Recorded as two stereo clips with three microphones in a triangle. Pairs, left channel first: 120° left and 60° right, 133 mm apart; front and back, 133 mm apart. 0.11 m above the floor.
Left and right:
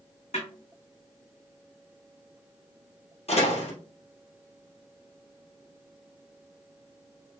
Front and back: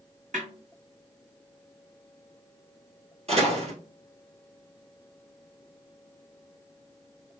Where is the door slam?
150° left, 2.5 m.